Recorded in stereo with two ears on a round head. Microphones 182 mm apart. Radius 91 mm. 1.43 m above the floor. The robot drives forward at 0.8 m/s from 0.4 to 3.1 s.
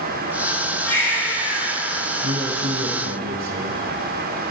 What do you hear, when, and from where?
0.8 s a baby crying: 10° left (ahead or behind), 5 m
2.2 s a man speaking: 55° right (ahead or behind), 3.5 m; by 3.8 s 65° right (ahead or behind), 3 m